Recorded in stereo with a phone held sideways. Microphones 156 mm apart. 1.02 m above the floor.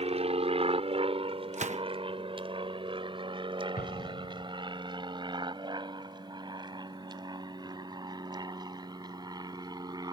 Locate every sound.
0.0 s an aircraft: 40° right (ahead or behind); by 10.1 s 25° right (ahead or behind)
1.5 s a gunshot: 50° right (ahead or behind)
3.8 s an explosion: 75° left (ahead or behind)